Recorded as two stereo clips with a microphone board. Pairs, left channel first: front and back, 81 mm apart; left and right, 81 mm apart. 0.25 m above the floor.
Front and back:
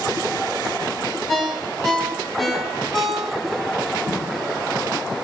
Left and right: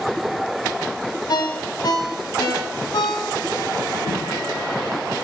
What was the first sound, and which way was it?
A ringtone, 90° left.